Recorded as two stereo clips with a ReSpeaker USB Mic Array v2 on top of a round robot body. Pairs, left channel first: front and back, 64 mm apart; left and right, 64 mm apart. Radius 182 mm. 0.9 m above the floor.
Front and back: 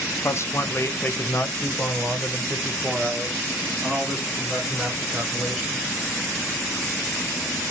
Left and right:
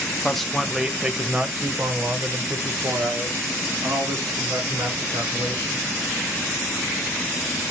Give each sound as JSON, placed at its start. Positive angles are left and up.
{"t": 0.2, "sound": "a man speaking", "azimuth_deg": 10, "distance_m": 1.1}